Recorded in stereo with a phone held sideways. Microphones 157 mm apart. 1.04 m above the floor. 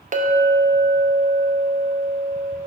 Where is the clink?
55° right (ahead or behind), 0.5 m.